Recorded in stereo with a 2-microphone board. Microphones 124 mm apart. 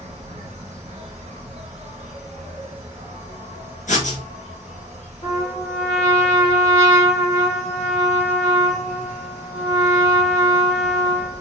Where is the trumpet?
45° left (ahead or behind), 2.5 m.